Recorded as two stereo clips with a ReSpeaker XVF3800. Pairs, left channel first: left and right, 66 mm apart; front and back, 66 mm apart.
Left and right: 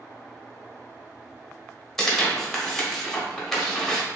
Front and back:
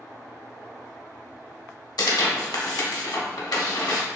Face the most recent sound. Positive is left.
turn(degrees=5)